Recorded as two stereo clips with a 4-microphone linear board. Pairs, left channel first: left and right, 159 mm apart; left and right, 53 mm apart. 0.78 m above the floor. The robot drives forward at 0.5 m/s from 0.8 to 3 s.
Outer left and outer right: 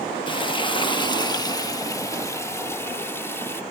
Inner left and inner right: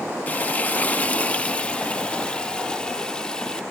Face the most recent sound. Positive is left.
turn(degrees=15)  # may be behind; listen again after turning